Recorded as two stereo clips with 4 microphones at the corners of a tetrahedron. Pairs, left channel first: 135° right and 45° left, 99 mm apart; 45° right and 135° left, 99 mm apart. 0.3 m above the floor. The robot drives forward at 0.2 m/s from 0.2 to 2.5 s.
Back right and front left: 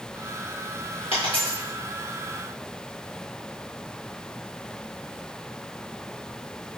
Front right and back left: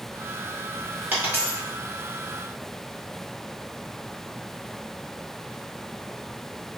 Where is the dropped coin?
150° right, 1.7 m.